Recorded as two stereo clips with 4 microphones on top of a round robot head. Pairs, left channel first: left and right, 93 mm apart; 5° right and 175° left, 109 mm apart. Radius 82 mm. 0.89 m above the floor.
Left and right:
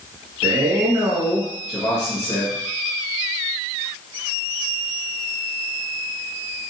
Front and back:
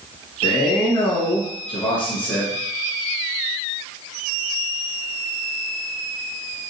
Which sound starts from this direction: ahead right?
A man speaking, at 0.4 s.